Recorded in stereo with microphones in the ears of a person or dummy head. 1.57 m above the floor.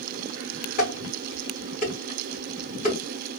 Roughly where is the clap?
No clap in this recording.